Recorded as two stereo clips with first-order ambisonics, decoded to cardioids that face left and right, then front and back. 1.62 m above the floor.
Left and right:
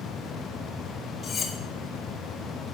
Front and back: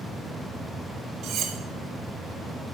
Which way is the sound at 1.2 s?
150° left.